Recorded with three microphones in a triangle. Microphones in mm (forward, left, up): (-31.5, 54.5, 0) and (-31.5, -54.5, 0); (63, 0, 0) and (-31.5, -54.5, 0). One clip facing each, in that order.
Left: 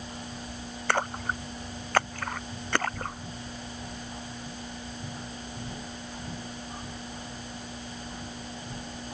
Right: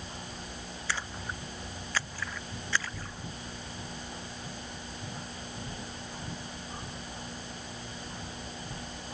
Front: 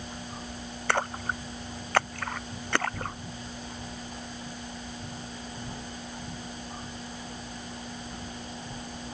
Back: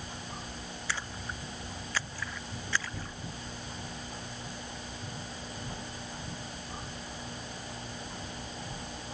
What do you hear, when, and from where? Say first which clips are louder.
0.9 s a splash: left 10 dB, front 12 dB; 60° left